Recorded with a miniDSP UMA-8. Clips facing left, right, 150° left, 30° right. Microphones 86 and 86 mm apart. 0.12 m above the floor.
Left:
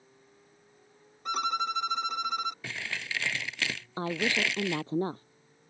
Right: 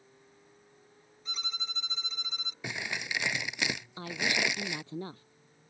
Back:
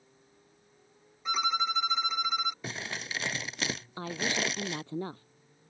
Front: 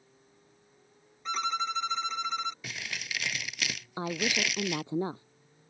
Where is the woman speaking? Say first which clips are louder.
Left 4 dB, front 2 dB; 40° left.